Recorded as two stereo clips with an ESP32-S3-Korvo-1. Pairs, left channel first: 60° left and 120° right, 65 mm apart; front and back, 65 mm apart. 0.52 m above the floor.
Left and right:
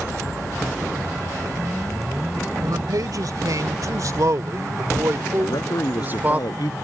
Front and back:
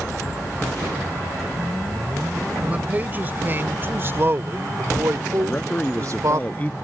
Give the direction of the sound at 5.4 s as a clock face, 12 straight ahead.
10 o'clock.